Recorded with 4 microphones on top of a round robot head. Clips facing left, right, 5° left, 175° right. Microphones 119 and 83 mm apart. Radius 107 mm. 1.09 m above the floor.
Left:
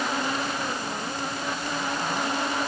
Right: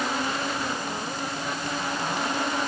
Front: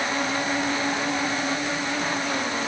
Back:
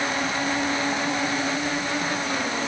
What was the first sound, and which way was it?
Only background noise.